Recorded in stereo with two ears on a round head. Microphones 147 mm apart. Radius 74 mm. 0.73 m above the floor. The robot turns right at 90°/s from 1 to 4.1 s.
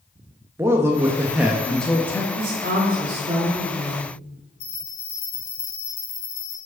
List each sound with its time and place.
0.6 s a man speaking: 15° right (ahead or behind), 0.7 m; by 2.2 s 15° left (ahead or behind), 0.7 m
2.4 s a woman speaking: 120° right, 1.7 m; by 4.0 s 30° left, 1.7 m
4.6 s a bell: 40° left (ahead or behind), 1.9 m